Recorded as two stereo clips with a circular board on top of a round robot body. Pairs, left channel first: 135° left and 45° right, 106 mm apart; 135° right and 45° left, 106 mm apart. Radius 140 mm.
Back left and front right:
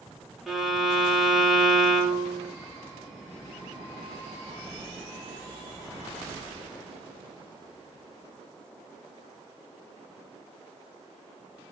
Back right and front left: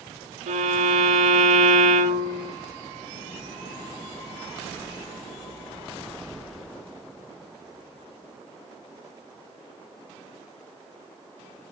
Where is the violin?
40° left, 1.6 m.